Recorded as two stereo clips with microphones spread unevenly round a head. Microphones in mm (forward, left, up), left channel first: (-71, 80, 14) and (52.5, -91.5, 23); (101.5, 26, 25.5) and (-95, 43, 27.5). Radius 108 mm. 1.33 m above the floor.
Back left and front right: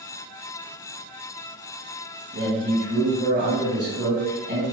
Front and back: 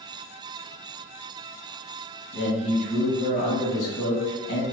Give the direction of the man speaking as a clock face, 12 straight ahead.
1 o'clock.